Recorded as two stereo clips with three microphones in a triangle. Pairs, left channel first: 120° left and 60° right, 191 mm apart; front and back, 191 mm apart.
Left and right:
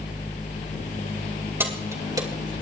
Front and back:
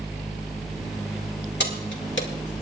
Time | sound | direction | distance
1.6 | keys jangling | 20° left | 2.5 m